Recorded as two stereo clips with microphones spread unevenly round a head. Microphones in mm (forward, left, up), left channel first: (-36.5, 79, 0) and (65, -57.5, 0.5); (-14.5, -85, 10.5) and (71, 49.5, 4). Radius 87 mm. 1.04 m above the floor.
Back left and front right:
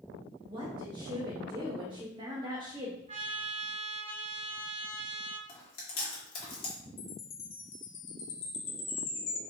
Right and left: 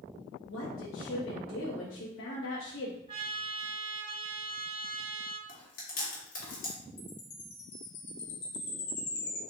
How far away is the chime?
About 1.1 m.